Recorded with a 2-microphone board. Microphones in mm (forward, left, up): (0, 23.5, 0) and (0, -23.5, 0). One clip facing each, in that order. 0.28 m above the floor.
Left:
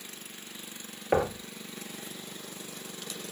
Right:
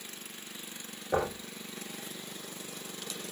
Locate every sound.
1.1 s knocking: 60° left (ahead or behind), 4 m